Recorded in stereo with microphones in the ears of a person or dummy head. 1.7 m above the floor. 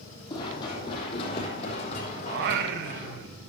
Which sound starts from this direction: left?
Running footsteps, at 0.3 s.